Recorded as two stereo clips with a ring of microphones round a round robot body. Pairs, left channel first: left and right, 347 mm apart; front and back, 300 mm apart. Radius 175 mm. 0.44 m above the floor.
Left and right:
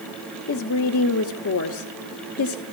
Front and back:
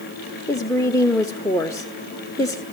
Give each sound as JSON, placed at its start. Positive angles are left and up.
{"t": 0.5, "sound": "a woman speaking", "azimuth_deg": 75, "distance_m": 1.1}